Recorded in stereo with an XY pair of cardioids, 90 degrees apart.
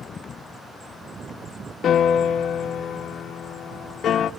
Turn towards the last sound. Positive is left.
turn(degrees=70)